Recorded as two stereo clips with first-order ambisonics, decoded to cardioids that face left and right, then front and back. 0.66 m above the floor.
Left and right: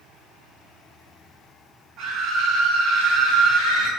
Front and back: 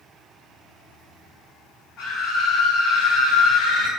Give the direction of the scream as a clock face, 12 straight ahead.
1 o'clock.